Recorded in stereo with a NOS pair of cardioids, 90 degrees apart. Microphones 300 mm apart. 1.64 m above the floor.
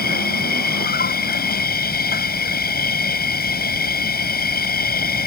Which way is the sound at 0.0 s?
30° left.